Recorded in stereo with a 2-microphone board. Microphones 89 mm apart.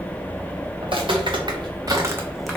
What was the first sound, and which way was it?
Footsteps, 65° right (ahead or behind).